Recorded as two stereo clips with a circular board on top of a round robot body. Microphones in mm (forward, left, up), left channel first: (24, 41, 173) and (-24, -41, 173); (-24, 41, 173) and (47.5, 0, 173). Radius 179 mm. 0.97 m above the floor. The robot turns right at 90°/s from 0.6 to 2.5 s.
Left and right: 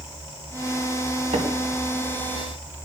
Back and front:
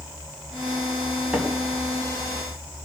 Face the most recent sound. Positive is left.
turn(degrees=0)